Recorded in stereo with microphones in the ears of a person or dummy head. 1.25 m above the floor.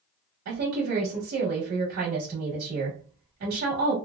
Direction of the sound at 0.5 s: 75° right (ahead or behind).